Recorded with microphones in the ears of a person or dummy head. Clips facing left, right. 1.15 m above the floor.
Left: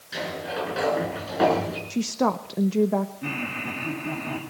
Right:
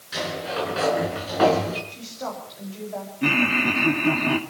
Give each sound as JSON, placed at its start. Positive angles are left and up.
{"t": 0.1, "sound": "a sliding door", "side_deg": 5, "distance_m": 4.5}
{"t": 1.9, "sound": "a woman speaking", "side_deg": 75, "distance_m": 1.0}
{"t": 3.2, "sound": "laughter", "side_deg": -80, "distance_m": 1.9}